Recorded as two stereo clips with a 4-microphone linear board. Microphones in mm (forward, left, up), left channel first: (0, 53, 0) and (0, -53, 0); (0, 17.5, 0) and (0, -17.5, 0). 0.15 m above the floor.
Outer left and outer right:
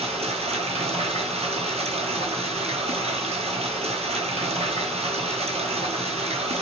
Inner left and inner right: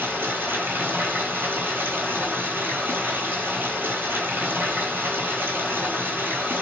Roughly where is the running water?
Right.